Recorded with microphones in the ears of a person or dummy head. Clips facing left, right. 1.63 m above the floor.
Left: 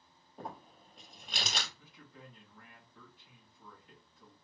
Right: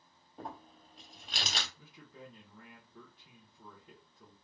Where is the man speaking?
65° right (ahead or behind), 1.2 m.